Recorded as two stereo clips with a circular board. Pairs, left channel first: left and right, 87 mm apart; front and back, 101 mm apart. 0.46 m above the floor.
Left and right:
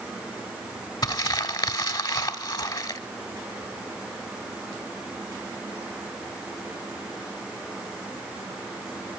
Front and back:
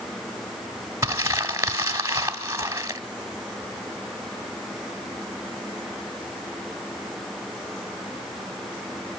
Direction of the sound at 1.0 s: 120° left.